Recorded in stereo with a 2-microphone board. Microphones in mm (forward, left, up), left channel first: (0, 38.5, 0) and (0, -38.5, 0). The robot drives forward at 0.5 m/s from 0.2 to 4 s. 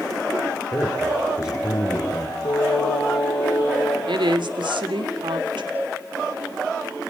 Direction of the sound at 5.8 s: 20° right (ahead or behind).